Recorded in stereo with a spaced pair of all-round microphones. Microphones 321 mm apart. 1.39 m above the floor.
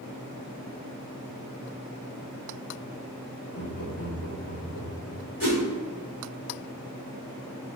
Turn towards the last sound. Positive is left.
turn(degrees=70)  # may be behind; listen again after turning